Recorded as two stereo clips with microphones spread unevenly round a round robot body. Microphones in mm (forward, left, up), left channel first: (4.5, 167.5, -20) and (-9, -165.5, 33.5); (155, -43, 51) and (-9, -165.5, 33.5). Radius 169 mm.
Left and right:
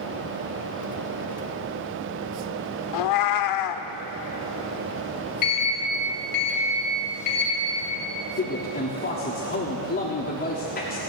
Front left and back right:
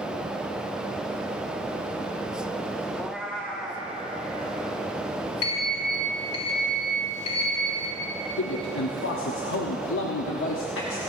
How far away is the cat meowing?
About 0.6 m.